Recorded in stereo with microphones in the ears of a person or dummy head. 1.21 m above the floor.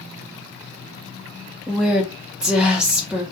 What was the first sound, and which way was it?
A woman speaking, centre (ahead or behind).